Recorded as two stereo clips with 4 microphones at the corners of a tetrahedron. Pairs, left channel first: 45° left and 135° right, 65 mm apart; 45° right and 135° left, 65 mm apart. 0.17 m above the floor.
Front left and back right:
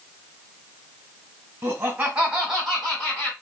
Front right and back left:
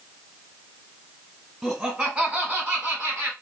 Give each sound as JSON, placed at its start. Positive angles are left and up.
{"t": 1.6, "sound": "laughter", "azimuth_deg": -135, "distance_m": 1.4}